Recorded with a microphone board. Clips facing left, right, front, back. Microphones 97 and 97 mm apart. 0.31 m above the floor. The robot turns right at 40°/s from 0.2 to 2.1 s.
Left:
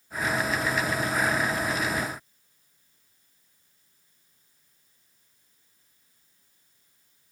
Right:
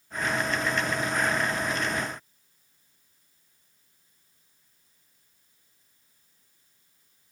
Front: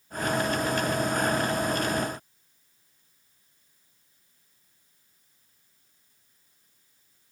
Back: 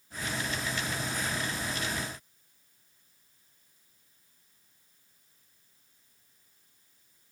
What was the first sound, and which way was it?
Only background noise.